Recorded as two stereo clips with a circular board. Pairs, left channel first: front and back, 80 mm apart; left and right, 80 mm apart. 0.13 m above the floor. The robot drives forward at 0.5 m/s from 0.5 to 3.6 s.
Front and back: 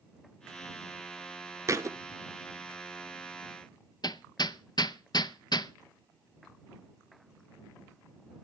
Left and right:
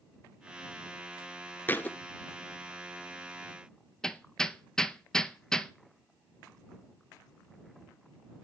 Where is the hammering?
10° left, 0.6 m.